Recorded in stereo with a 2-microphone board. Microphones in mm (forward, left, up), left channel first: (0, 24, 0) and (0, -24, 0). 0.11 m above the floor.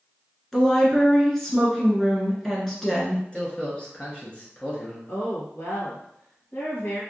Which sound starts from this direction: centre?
A woman speaking, at 0.5 s.